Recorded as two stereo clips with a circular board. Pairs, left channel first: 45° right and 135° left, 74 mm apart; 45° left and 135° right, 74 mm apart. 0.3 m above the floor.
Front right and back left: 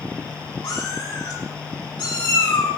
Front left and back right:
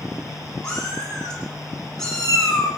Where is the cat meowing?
30° right, 7 m; by 2.7 s 40° right, 7.5 m.